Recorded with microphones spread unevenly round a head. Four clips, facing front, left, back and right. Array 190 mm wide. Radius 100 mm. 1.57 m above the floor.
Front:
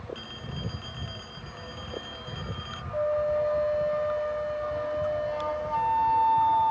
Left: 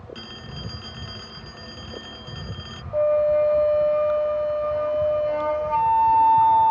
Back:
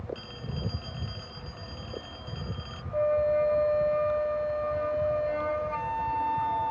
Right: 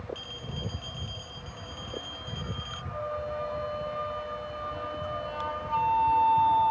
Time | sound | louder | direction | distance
0.1 | a phone ringing | left 2 dB, back 1 dB | 75° left | ?
2.9 | a flute | left 15 dB, back 1 dB | 105° left | ?